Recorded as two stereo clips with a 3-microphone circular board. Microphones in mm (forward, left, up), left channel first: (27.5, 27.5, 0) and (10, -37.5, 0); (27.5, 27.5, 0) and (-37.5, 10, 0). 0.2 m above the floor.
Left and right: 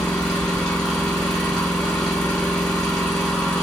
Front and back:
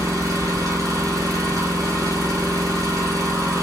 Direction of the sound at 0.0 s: 155° left.